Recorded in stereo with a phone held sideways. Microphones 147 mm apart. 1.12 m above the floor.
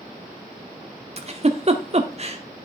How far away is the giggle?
About 1.0 m.